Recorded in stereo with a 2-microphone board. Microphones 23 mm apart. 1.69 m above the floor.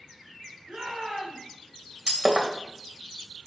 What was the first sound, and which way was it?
A shout, 35° right (ahead or behind).